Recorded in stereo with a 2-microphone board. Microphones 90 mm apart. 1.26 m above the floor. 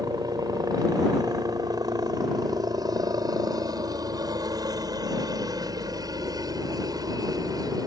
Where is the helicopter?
45° right (ahead or behind).